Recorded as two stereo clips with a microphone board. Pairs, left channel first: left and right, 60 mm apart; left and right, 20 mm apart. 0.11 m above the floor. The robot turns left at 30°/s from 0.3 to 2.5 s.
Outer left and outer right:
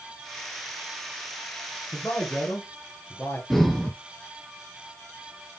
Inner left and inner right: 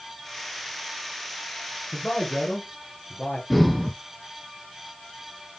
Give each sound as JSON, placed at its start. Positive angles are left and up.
{"t": 1.9, "sound": "a man speaking", "side_deg": 15, "distance_m": 1.8}
{"t": 3.5, "sound": "breathing", "side_deg": 5, "distance_m": 0.6}